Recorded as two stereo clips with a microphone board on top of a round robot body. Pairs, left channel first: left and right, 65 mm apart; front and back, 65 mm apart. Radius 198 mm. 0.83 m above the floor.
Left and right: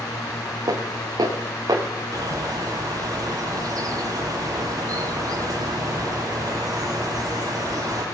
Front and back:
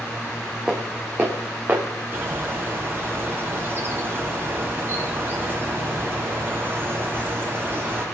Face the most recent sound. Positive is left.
turn(degrees=-120)